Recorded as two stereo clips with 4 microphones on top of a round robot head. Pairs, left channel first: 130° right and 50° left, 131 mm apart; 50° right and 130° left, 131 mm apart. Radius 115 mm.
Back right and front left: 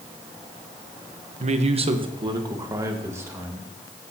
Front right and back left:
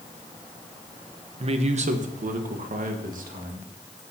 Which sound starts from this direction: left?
A man speaking, at 1.4 s.